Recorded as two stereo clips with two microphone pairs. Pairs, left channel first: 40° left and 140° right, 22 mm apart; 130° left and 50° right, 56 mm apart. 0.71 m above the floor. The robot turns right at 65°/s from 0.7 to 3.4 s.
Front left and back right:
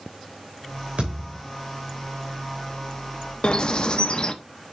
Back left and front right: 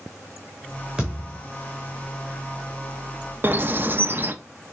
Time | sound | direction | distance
1.0 | a thud | 125° right | 3 m
3.4 | a bird | straight ahead | 0.6 m